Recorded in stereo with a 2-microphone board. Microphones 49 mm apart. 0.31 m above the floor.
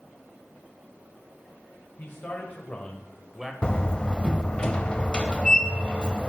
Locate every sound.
2.0 s a man speaking: 45° left (ahead or behind), 1.6 m; by 3.5 s 10° right (ahead or behind), 1.2 m
3.6 s a door slam: 20° left (ahead or behind), 0.8 m